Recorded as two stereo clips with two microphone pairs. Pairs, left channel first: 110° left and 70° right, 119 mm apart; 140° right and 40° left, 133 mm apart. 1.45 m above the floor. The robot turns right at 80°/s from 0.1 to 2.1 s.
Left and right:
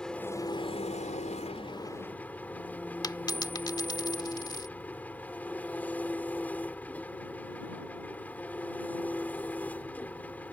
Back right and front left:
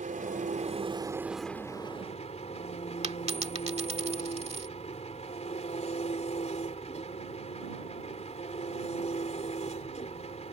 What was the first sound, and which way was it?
An engine running, 25° left.